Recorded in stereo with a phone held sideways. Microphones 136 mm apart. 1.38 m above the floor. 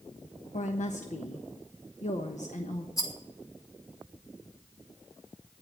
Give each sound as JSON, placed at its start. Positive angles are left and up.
{"t": 0.5, "sound": "a woman speaking", "side_deg": 70, "distance_m": 1.1}
{"t": 3.0, "sound": "a rattle", "side_deg": 25, "distance_m": 2.5}